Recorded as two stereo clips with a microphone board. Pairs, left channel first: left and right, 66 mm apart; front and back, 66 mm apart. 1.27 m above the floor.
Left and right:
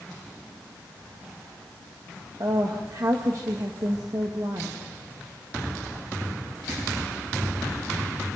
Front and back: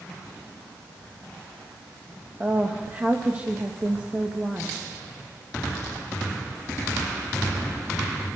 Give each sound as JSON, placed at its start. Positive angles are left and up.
{"t": 2.4, "sound": "a woman speaking", "azimuth_deg": -110, "distance_m": 1.9}